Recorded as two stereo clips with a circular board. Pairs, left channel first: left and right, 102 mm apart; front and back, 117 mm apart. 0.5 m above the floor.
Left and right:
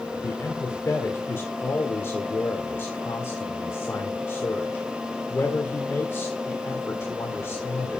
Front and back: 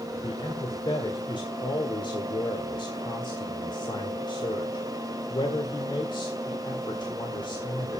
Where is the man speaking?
30° left, 1.7 m.